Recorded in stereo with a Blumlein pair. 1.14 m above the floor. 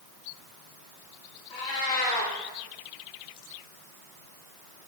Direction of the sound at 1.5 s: 30° left.